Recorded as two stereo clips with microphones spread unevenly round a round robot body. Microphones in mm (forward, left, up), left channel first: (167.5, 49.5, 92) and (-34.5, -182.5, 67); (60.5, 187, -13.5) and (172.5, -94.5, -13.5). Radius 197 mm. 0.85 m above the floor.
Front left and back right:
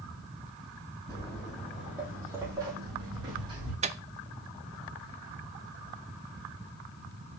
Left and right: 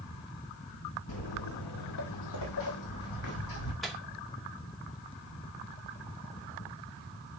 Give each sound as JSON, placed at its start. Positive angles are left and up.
{"t": 1.1, "sound": "footsteps", "azimuth_deg": 125, "distance_m": 1.2}
{"t": 3.8, "sound": "a microwave", "azimuth_deg": -160, "distance_m": 0.6}